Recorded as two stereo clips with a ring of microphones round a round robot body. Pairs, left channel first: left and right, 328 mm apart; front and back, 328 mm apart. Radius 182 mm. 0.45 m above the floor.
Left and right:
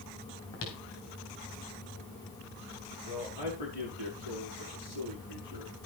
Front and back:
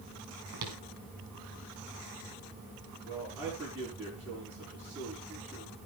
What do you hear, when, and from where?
0.5 s footsteps: 145° left, 4 m
3.0 s a man speaking: 95° left, 8.5 m